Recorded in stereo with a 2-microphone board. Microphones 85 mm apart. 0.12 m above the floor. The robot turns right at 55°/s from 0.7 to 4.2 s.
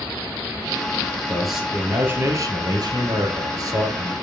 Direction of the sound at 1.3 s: 170° left.